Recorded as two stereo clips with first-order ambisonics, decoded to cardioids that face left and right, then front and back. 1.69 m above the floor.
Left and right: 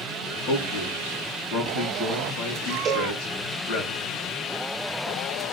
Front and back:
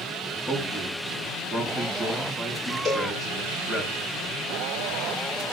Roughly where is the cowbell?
Right.